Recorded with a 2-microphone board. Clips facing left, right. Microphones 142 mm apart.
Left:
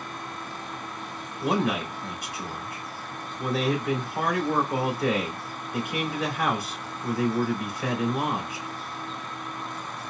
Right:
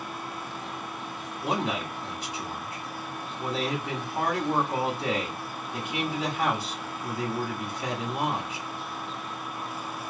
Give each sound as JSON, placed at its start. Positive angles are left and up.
{"t": 1.4, "sound": "a man speaking", "side_deg": -25, "distance_m": 1.6}